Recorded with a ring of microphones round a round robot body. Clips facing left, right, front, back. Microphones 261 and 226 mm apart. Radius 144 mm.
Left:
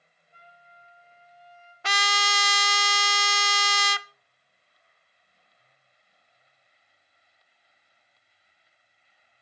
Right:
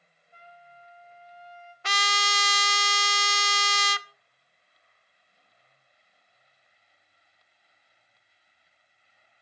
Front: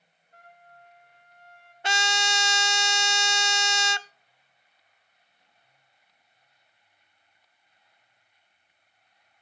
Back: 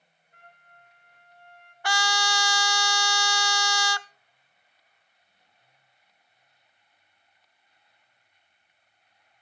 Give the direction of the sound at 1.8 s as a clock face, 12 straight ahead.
10 o'clock.